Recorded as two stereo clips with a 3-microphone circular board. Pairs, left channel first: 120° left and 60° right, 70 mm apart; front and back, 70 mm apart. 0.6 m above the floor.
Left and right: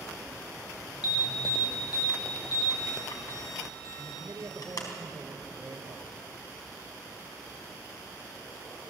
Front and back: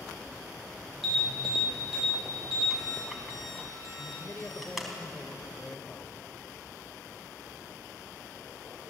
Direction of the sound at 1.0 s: 95° left.